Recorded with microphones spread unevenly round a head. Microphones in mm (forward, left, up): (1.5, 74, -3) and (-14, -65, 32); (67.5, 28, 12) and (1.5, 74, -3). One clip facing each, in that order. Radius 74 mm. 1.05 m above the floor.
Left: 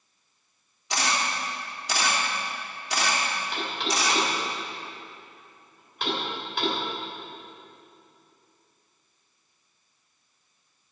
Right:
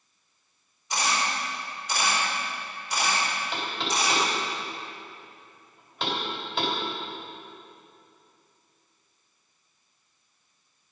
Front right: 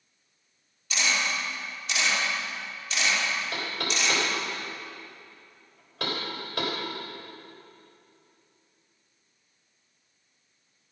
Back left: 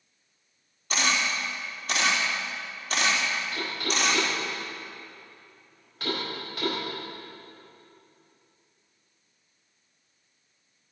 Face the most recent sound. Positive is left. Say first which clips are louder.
# left 1 dB, back left 1 dB
turn(degrees=-35)